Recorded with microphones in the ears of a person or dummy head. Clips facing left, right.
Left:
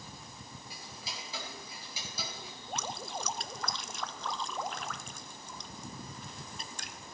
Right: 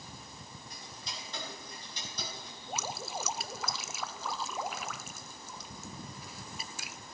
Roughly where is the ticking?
Centre.